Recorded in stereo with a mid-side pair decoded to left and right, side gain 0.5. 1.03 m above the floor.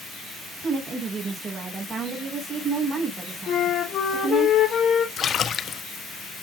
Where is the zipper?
I don't hear a zipper.